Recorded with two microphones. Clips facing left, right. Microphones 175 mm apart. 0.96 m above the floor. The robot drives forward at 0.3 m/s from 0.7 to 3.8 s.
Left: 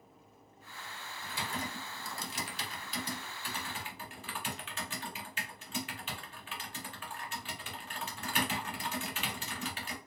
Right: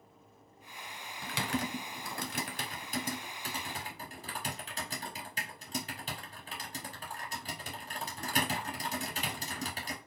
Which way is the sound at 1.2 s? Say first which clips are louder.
Right 5 dB; 85° right.